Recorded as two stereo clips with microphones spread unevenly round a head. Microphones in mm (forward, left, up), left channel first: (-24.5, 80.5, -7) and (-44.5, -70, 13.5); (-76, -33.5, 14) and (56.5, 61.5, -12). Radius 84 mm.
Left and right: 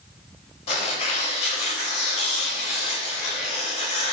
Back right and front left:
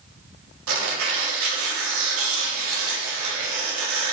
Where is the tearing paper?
25° left, 3 m.